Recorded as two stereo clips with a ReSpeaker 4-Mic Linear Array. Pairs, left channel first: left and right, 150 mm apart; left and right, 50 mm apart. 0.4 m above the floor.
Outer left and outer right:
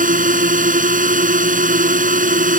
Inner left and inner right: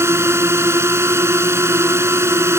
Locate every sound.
0.0 s a drone: 60° right (ahead or behind)